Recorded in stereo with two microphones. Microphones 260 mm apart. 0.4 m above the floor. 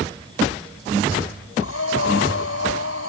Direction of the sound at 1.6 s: 65° left (ahead or behind).